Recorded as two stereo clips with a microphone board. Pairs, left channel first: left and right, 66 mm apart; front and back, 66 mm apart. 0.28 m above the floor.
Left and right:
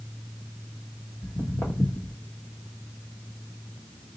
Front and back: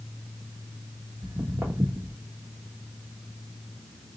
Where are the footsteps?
120° left, 1.0 m.